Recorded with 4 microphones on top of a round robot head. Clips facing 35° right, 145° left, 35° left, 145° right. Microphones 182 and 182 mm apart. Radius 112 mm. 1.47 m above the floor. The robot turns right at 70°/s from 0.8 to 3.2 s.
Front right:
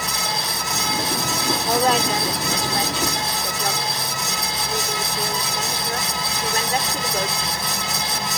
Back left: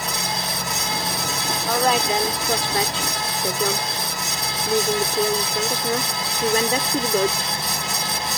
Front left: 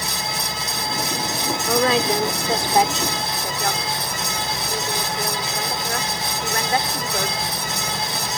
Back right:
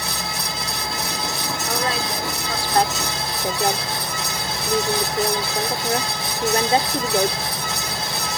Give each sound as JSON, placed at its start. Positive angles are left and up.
{"t": 1.7, "sound": "a woman speaking", "azimuth_deg": 40}